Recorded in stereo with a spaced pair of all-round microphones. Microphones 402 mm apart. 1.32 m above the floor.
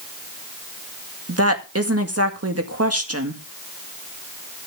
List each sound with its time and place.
1.3 s a woman speaking: 35° right (ahead or behind), 1.9 m